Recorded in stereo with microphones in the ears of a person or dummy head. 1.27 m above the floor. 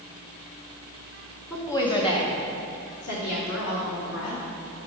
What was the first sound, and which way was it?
A woman speaking, 10° left (ahead or behind).